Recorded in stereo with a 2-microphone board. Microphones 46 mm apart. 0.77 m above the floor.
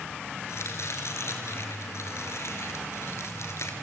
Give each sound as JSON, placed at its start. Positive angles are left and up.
{"t": 0.5, "sound": "chopping", "side_deg": 65, "distance_m": 3.5}